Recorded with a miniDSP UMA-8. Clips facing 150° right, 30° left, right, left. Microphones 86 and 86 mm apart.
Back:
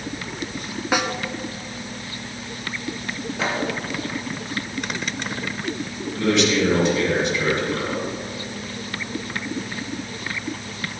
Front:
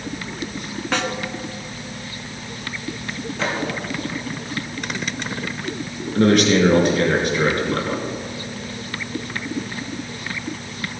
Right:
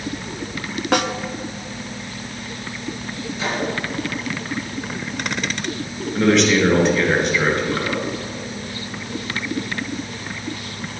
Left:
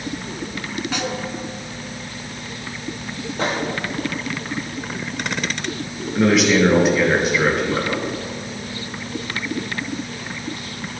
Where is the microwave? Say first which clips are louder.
Front 1 dB, left 3 dB; 130° left, 3.5 m.